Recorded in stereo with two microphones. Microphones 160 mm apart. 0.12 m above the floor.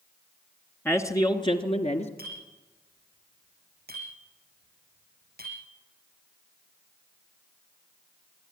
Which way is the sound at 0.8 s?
15° left (ahead or behind).